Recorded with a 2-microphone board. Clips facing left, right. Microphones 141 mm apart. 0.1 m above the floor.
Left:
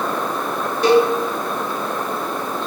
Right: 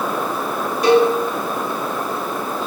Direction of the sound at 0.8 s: 35° left (ahead or behind).